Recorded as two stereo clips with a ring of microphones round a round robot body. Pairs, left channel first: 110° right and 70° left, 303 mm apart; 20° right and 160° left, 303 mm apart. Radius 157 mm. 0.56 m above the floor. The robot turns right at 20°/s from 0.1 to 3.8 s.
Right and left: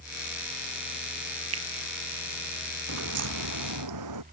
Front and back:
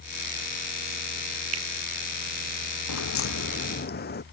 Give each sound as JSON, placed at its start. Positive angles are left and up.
{"t": 1.5, "sound": "a finger snap", "azimuth_deg": 115}
{"t": 2.9, "sound": "a crack", "azimuth_deg": 20}